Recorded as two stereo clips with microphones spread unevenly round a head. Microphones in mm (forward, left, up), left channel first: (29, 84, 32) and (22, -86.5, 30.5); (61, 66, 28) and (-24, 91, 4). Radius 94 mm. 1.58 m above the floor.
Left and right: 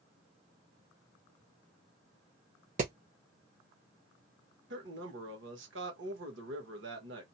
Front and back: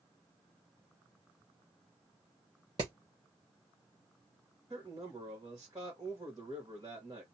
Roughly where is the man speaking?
Behind right.